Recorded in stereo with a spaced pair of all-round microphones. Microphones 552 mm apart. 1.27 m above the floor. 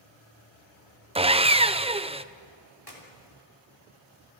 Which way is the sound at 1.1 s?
10° right (ahead or behind).